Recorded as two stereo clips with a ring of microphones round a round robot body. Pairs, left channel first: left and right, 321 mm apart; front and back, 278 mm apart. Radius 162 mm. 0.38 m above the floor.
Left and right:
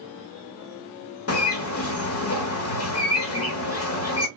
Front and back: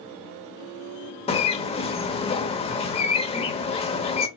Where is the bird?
65° left, 1.0 m.